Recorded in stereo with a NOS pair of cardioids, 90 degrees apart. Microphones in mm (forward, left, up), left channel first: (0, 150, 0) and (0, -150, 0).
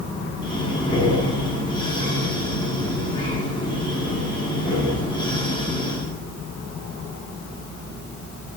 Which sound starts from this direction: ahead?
Breathing, at 0.4 s.